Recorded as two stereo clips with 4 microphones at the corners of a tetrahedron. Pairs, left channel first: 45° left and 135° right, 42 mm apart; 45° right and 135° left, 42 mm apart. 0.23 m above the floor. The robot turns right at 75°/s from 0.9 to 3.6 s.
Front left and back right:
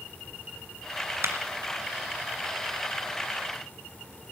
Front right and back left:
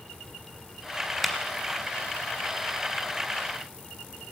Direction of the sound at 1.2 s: 140° right.